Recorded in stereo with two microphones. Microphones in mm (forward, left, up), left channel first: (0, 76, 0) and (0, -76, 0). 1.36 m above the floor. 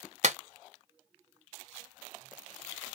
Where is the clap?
55° right (ahead or behind), 0.7 m.